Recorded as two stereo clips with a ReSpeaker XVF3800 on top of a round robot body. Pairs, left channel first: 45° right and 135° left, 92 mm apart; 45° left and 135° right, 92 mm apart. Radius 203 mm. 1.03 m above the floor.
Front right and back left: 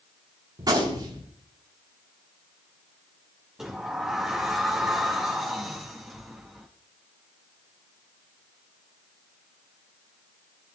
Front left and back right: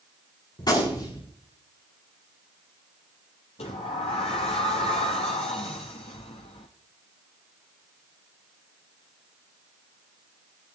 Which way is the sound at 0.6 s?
90° left.